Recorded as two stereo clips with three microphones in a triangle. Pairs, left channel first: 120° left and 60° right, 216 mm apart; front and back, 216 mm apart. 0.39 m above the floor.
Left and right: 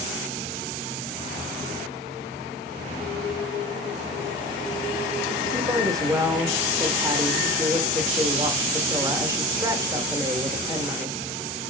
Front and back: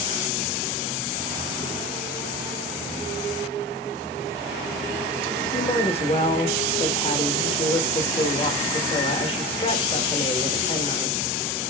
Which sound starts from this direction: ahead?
A woman speaking, at 5.5 s.